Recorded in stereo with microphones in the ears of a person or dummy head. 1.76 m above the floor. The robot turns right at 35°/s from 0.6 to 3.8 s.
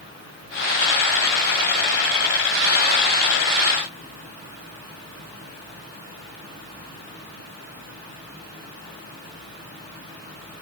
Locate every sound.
Only background noise.